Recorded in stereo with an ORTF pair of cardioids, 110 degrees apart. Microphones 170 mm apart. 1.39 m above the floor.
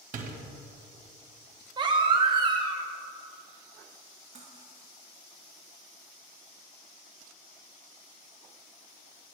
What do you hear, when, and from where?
0.1 s a door slam: 50° right, 1.3 m
1.8 s a baby crying: 30° right, 1.0 m
4.3 s cutlery clinking: 40° right, 1.4 m